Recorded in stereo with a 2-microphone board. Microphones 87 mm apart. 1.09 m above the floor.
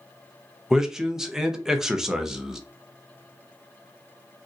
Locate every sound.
0.7 s a man speaking: 5° right (ahead or behind), 0.6 m